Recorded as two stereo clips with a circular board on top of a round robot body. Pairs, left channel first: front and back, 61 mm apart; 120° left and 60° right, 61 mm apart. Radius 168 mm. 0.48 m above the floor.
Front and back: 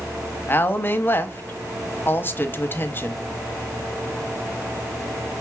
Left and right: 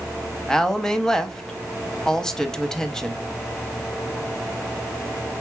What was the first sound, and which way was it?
A woman speaking, 40° left.